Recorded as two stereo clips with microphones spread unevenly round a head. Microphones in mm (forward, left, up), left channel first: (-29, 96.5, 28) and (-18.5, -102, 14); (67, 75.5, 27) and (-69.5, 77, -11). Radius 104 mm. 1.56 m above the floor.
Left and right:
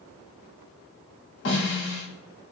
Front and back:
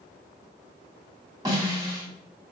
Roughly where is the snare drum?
Left.